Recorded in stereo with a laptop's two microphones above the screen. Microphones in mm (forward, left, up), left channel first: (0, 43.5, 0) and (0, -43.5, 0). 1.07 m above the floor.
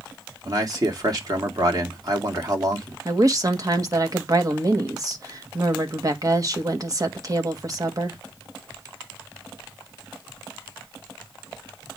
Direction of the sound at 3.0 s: 40° right (ahead or behind).